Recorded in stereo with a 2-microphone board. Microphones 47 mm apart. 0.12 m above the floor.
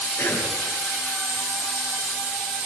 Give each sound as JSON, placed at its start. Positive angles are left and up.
{"t": 0.2, "sound": "a cough", "side_deg": 45, "distance_m": 10.0}